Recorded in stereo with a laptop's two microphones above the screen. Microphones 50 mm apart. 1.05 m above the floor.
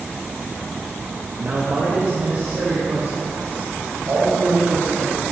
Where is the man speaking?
30° right (ahead or behind), 0.9 m; by 5.2 s 45° right (ahead or behind), 6.5 m.